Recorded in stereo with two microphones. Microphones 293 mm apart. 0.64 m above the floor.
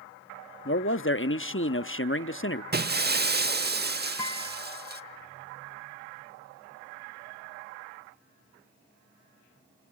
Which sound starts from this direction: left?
A man speaking, at 0.7 s.